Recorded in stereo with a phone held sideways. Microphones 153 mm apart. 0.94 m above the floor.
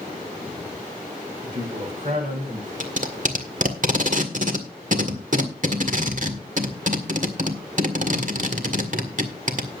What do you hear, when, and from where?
1.4 s a man speaking: 45° right (ahead or behind), 7.5 m; by 2.7 s 55° right (ahead or behind), 7 m
2.8 s tape being pulled: 55° right (ahead or behind), 1.7 m